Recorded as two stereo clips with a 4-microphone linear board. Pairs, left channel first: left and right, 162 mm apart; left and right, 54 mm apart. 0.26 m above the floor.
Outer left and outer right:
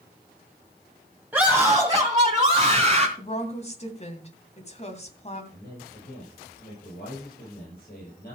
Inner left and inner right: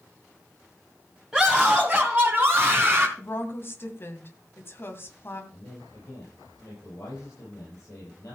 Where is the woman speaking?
40° left (ahead or behind), 2 m.